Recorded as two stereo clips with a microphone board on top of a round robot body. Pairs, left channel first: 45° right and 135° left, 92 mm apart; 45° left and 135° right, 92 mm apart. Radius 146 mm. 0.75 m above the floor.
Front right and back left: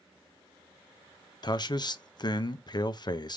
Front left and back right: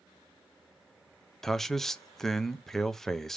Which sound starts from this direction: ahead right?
A man speaking, at 1.4 s.